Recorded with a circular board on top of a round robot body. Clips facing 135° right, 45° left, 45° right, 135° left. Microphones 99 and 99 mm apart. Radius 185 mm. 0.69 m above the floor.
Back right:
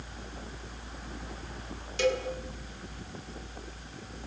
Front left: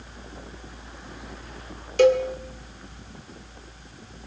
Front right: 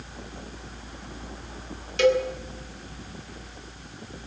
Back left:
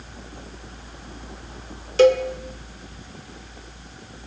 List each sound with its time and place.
2.0 s a cowbell: 80° left, 1.9 m